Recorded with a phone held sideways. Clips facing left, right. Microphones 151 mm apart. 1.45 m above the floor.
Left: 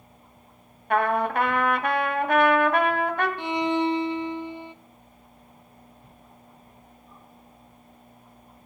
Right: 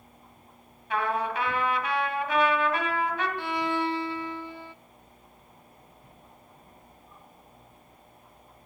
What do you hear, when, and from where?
0.9 s a trumpet: 55° left (ahead or behind), 2 m
3.4 s a violin: 20° left (ahead or behind), 0.6 m